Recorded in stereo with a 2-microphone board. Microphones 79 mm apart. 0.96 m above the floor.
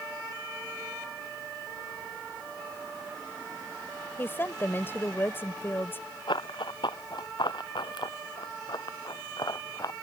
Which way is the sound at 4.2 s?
30° left (ahead or behind).